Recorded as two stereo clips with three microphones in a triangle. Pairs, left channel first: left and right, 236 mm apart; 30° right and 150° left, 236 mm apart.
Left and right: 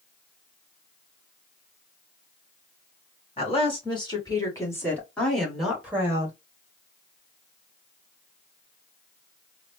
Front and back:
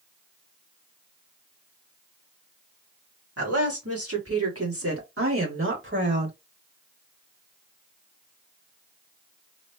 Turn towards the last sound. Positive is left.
turn(degrees=-165)